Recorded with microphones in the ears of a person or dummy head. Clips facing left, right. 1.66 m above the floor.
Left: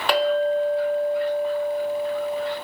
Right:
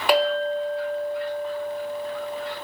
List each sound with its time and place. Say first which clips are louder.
0.1 s a clink: left 1 dB; 5° right (ahead or behind), 1.1 m